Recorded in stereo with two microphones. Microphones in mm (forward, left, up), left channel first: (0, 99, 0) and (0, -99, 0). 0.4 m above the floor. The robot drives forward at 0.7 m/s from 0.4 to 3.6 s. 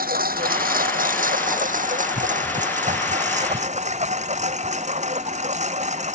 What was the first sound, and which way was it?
A lawn mower, 50° right (ahead or behind).